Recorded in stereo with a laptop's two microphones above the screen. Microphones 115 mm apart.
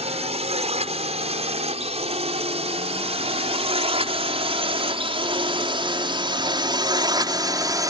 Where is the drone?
65° right (ahead or behind); by 7.9 s 30° right (ahead or behind).